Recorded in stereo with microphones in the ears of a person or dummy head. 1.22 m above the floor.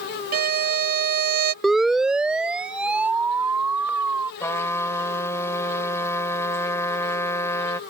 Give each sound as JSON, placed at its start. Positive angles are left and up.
{"t": 0.3, "sound": "a violin", "side_deg": -50}
{"t": 1.6, "sound": "a siren", "side_deg": 0}
{"t": 4.4, "sound": "a trumpet", "side_deg": 15}